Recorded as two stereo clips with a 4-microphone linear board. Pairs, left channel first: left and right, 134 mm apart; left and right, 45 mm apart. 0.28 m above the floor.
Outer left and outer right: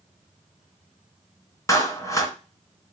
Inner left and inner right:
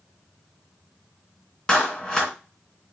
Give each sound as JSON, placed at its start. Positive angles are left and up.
{"t": 1.7, "sound": "a clap", "side_deg": 25, "distance_m": 2.5}